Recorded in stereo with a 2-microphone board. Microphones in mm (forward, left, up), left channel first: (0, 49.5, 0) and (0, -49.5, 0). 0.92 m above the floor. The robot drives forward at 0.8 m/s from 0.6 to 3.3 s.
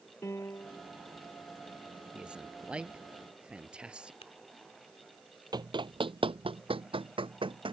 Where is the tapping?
85° left.